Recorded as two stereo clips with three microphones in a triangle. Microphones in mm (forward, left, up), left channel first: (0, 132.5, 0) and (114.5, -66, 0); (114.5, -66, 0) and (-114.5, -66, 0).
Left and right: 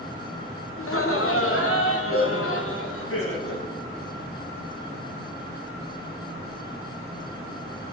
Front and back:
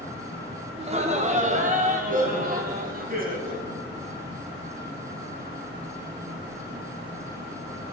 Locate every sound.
0.8 s laughter: 120° left, 1.6 m; by 3.7 s 130° left, 3.5 m